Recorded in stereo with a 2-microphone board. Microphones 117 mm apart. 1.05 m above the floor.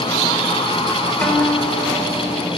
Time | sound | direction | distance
1.2 | a guitar | 15° left (ahead or behind) | 4.5 m